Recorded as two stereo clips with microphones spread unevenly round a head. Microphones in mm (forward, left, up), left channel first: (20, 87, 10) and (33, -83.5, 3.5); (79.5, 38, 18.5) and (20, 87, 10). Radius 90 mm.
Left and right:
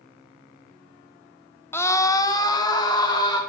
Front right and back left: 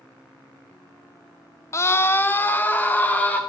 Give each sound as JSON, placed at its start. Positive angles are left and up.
{"t": 1.7, "sound": "a scream", "azimuth_deg": 15, "distance_m": 0.7}